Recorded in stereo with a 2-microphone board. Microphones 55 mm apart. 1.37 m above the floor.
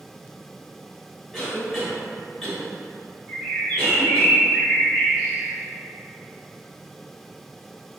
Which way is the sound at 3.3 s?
5° left (ahead or behind).